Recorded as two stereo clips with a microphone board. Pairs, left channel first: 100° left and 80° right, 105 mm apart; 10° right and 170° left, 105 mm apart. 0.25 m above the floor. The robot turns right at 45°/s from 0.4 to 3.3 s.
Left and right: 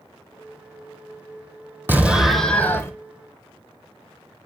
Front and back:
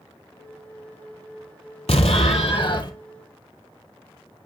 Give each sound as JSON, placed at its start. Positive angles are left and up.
{"t": 1.9, "sound": "an explosion", "azimuth_deg": -10, "distance_m": 1.2}